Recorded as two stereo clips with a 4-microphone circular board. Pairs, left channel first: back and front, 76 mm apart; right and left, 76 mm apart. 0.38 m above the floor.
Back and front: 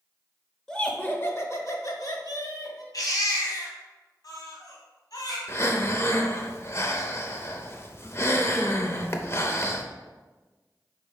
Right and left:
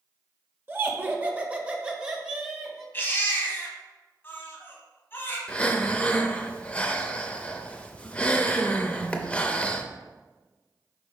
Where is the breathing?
155° right, 0.6 m.